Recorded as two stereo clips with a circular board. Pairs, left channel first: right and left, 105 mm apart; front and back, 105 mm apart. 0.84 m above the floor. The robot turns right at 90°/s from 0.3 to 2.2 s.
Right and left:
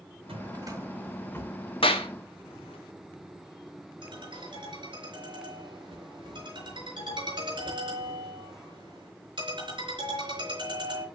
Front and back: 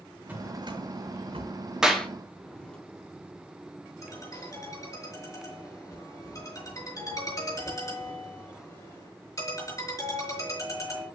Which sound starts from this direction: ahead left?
A ringtone, at 4.0 s.